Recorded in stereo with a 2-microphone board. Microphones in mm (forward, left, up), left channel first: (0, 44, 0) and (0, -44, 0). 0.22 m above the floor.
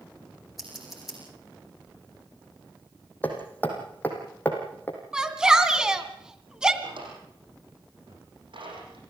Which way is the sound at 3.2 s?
20° left (ahead or behind).